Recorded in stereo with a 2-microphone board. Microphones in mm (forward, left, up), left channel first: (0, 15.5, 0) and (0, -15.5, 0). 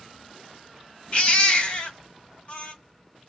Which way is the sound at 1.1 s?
40° left (ahead or behind).